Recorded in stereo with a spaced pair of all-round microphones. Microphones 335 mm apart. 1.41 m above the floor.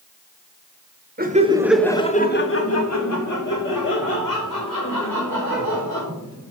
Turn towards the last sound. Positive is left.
turn(degrees=85)